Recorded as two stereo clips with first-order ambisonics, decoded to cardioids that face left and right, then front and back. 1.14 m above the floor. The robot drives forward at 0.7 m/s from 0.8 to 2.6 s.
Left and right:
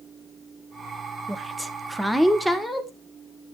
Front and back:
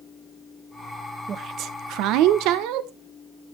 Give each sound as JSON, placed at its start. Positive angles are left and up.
{"t": 1.3, "sound": "a woman speaking", "azimuth_deg": -165, "distance_m": 0.6}